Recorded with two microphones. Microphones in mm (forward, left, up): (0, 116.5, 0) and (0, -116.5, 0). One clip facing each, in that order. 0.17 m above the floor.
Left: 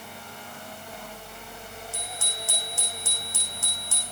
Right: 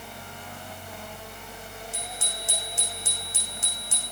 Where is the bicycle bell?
20° right (ahead or behind), 7 m.